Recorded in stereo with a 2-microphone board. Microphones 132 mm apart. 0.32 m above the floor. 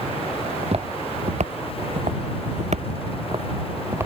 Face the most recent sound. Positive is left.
turn(degrees=-20)  # may be behind; listen again after turning